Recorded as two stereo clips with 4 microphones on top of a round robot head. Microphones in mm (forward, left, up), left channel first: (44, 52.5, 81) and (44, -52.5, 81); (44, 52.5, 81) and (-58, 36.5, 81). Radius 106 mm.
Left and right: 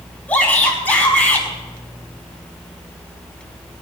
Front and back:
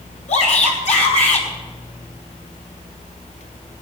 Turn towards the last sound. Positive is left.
turn(degrees=15)